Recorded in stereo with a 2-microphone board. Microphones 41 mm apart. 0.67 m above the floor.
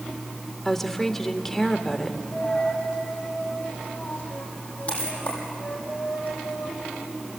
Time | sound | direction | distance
0.7 | a woman speaking | 10° left (ahead or behind) | 1.6 m
2.3 | a dropped coin | 30° left (ahead or behind) | 7 m